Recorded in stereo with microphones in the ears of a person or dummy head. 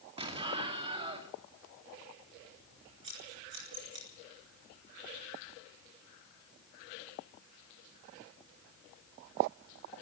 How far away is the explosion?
About 2 m.